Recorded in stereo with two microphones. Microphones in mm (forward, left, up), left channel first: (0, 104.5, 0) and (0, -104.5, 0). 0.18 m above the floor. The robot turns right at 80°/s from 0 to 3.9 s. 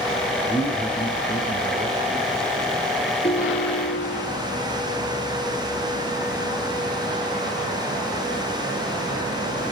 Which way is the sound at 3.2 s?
30° left.